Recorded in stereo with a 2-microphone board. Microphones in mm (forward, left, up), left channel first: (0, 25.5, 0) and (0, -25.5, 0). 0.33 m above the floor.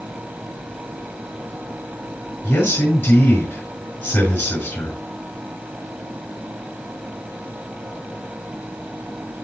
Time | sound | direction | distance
2.4 | a man speaking | 70° left (ahead or behind) | 5 m